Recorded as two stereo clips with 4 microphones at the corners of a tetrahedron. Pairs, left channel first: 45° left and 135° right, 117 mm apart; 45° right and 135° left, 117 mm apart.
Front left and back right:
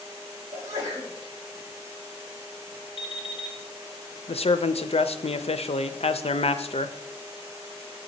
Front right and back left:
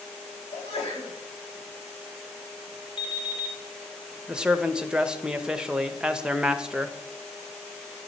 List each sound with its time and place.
0.5 s a sneeze: 75° right, 3 m
3.0 s an alarm clock: straight ahead, 1.8 m
4.3 s a man speaking: 55° left, 0.6 m